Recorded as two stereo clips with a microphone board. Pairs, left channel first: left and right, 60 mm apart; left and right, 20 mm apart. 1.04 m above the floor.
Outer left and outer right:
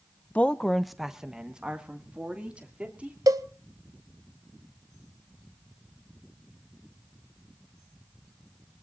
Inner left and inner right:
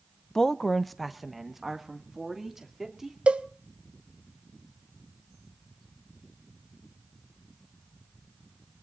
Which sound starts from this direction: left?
A woman speaking, at 0.3 s.